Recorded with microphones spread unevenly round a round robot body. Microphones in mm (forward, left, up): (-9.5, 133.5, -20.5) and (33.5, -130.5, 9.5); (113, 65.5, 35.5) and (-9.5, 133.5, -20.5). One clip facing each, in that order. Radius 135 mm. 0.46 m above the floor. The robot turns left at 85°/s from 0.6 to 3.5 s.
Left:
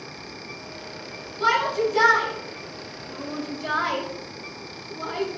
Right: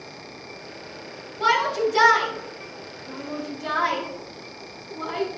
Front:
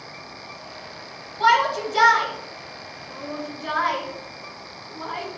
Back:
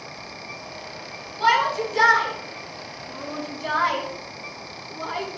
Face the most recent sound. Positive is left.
turn(degrees=-160)